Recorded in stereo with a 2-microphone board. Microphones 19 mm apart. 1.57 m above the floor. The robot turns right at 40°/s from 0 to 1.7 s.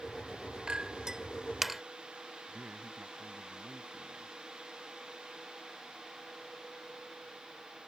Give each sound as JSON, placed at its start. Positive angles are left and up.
{"t": 0.7, "sound": "a clink", "side_deg": -55}
{"t": 2.5, "sound": "a man speaking", "side_deg": -65}